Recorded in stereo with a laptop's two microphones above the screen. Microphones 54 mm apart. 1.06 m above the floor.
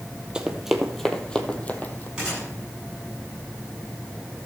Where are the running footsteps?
15° right (ahead or behind), 1.2 m; by 2.1 s 35° left (ahead or behind), 1.4 m.